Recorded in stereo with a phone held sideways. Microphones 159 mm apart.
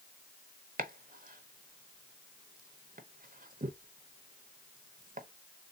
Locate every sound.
0.8 s chopping: 60° right (ahead or behind), 0.7 m